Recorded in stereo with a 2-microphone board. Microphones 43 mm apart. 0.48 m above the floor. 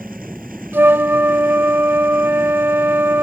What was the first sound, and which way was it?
A flute, 55° right (ahead or behind).